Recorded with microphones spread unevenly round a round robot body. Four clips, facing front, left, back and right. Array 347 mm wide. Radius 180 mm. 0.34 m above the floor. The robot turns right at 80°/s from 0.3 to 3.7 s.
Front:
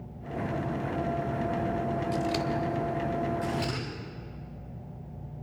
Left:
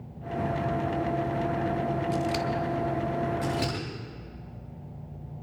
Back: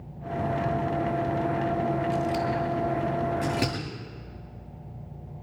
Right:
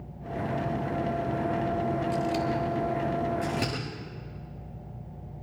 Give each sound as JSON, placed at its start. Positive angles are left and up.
{"t": 2.1, "sound": "scissors", "azimuth_deg": 10, "distance_m": 1.5}
{"t": 3.4, "sound": "scissors", "azimuth_deg": 175, "distance_m": 8.5}